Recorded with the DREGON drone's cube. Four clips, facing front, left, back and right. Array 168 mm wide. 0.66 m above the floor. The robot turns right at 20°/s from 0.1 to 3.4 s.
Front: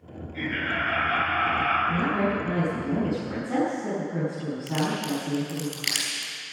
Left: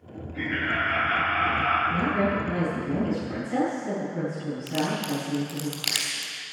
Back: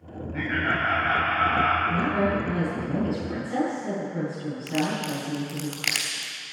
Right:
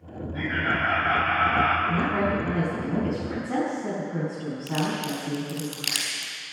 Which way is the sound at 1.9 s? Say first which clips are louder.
Even, back 1 dB; 85° right.